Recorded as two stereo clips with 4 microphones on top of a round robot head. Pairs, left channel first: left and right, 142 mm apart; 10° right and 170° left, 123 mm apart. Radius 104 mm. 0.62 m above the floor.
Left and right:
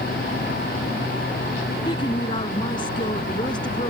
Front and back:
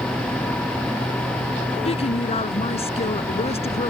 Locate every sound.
1.9 s a woman speaking: 25° left